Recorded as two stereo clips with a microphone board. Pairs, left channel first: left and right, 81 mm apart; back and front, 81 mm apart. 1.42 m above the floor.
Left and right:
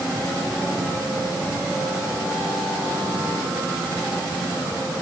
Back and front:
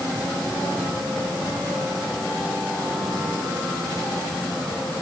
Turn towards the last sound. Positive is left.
No sound to turn to.